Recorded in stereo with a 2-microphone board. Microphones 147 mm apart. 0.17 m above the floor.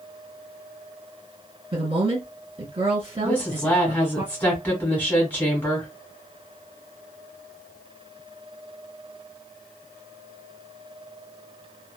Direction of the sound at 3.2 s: 15° left (ahead or behind).